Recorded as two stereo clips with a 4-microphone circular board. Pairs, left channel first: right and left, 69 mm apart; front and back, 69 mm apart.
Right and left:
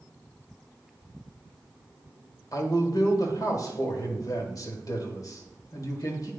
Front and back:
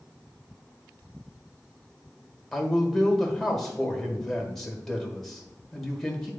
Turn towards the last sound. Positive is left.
turn(degrees=-85)